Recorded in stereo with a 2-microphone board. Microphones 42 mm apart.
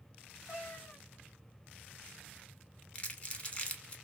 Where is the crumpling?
30° left (ahead or behind), 0.5 m.